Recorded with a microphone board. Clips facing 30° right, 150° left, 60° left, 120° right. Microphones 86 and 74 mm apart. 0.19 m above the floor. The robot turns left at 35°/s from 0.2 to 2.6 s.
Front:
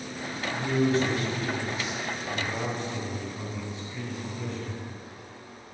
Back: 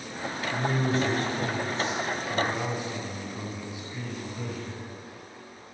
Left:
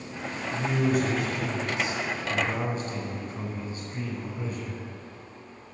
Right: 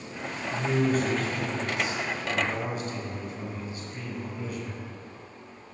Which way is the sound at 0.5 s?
155° left.